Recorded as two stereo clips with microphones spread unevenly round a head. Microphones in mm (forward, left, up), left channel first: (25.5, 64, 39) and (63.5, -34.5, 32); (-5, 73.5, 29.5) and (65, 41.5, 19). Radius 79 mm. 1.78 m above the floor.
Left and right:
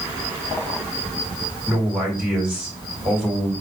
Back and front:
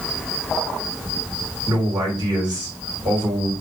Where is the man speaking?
15° left, 3 m.